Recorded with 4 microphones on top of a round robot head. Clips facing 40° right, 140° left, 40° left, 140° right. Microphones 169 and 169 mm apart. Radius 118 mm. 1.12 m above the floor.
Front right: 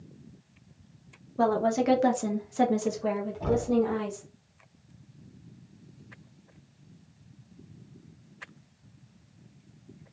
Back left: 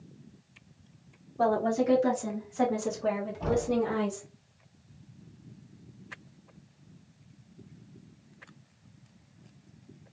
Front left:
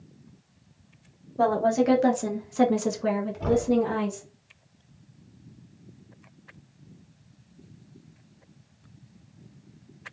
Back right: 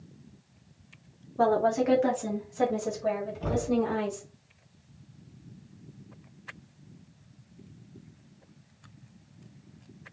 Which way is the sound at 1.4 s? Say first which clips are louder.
Front right 1 dB, front left 2 dB; 35° right.